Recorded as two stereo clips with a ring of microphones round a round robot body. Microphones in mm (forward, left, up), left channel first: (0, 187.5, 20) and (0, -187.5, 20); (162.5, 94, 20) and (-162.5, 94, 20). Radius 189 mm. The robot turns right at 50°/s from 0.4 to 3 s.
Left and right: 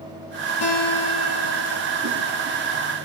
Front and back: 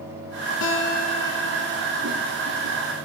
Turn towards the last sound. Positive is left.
turn(degrees=165)